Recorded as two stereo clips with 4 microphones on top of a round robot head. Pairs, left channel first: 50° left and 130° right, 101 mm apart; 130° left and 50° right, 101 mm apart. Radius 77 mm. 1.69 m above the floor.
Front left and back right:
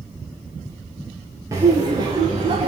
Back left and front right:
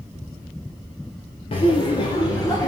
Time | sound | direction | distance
1.5 | laughter | 165° left | 1.7 m